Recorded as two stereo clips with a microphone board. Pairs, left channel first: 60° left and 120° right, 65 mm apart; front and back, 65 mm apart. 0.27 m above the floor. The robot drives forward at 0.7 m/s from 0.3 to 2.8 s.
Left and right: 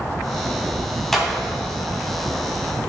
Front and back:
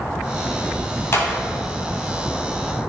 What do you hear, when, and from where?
1.1 s a clap: 25° right, 1.8 m; by 1.4 s 30° right, 1.6 m